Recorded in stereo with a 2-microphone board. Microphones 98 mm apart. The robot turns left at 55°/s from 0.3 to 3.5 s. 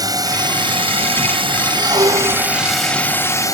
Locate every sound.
0.0 s a drone: 45° right; by 3.5 s 140° left
1.8 s a squeak: 45° right; by 2.6 s 90° right